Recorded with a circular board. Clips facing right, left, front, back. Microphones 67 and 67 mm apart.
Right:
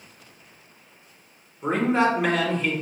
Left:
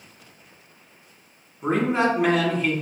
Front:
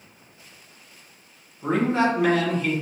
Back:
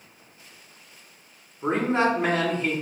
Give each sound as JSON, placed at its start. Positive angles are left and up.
{"t": 1.6, "sound": "a man speaking", "azimuth_deg": 175, "distance_m": 1.2}